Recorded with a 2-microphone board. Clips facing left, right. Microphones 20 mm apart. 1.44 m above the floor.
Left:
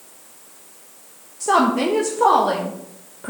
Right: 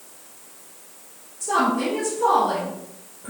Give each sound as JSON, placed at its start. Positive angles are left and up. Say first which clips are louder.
{"t": 1.4, "sound": "a woman speaking", "louder": "left 4 dB", "side_deg": 75, "distance_m": 1.4}